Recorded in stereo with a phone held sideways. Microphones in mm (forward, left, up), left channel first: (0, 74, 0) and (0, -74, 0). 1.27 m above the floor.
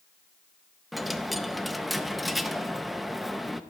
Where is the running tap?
No running tap in this recording.